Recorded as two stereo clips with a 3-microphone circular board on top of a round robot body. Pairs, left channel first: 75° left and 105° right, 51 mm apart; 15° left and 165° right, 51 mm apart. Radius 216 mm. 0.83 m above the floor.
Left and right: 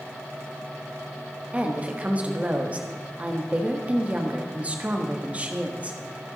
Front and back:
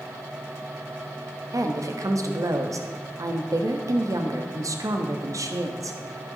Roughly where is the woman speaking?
Behind.